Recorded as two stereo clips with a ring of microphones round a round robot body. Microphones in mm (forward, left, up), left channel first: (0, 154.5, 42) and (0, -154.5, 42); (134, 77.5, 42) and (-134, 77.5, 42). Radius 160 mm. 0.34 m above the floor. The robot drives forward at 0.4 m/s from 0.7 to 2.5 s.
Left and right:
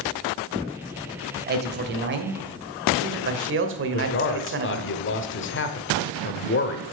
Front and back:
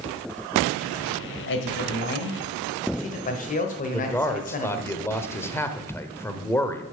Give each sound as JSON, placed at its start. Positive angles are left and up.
{"t": 1.5, "sound": "a man speaking", "azimuth_deg": -35, "distance_m": 1.4}
{"t": 3.9, "sound": "a man speaking", "azimuth_deg": 75, "distance_m": 1.1}